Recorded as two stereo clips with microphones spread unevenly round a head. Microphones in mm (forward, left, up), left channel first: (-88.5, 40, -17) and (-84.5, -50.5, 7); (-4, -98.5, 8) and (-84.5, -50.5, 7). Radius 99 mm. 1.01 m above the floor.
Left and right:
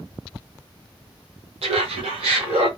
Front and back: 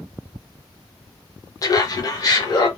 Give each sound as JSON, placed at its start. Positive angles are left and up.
{"t": 1.6, "sound": "laughter", "azimuth_deg": -80, "distance_m": 0.8}